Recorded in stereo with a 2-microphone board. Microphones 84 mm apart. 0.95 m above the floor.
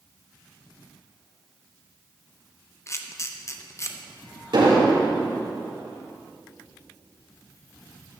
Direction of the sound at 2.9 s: 35° left (ahead or behind).